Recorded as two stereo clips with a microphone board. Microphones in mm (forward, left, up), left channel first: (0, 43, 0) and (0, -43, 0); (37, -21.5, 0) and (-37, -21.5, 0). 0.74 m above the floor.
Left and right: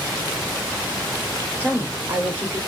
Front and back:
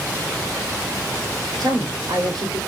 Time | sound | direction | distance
1.6 | a woman speaking | 155° right | 3 m